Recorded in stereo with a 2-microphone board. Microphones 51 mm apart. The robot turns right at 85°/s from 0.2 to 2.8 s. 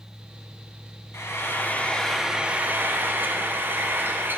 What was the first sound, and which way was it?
Frying, 95° left.